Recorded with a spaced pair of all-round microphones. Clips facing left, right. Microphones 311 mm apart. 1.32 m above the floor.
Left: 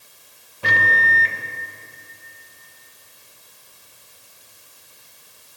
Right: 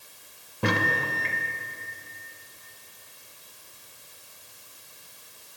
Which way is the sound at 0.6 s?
60° right (ahead or behind).